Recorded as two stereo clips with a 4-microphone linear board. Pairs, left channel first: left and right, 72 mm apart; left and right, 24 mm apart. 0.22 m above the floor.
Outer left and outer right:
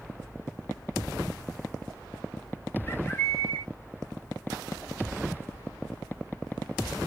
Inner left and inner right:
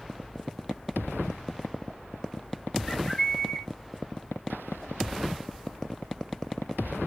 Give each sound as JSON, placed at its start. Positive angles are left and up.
{"t": 2.9, "sound": "a bird", "side_deg": 30, "distance_m": 1.4}